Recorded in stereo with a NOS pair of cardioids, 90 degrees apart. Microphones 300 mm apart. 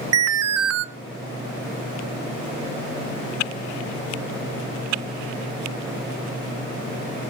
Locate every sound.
0.1 s an alarm: 55° right, 0.8 m